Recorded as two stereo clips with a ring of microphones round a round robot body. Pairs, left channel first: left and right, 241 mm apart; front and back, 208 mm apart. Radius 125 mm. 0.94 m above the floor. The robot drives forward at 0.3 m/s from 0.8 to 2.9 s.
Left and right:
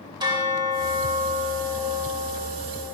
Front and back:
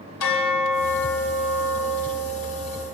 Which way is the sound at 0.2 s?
15° right.